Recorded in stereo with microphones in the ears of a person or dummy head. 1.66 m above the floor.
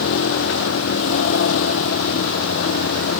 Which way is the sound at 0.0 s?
80° left.